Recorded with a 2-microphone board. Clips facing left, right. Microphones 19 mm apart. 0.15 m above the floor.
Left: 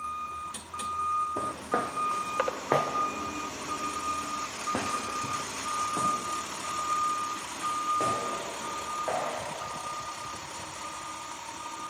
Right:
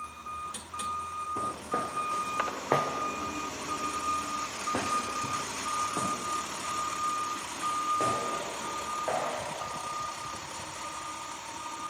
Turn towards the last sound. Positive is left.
turn(degrees=0)  # may be behind; listen again after turning